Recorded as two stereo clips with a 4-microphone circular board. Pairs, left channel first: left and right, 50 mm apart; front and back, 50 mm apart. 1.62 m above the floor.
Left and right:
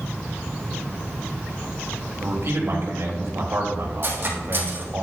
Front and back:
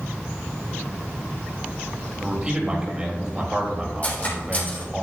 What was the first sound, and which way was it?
A man speaking, 110° right.